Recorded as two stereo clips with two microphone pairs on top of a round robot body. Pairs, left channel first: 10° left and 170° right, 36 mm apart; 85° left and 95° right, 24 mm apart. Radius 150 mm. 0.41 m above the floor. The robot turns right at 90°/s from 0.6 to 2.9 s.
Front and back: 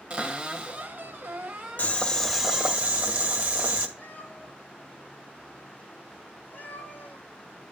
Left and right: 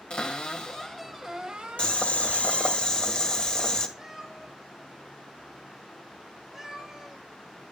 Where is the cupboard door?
125° left, 1.6 m; by 2.8 s 35° right, 1.6 m.